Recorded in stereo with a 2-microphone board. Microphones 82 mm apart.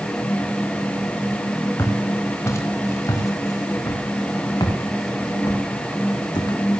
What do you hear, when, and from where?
1.8 s footsteps: 30° left (ahead or behind), 8.5 m; by 6.8 s 65° left (ahead or behind), 9 m